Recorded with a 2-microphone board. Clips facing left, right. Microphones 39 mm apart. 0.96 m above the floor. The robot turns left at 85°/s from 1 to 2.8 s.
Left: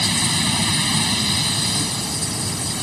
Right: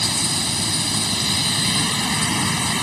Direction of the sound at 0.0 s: 35° left.